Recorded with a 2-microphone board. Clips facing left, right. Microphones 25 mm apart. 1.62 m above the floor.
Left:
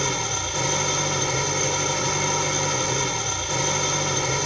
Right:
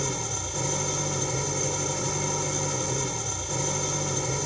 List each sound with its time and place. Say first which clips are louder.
0.0 s an engine running: left 6 dB; 45° left (ahead or behind)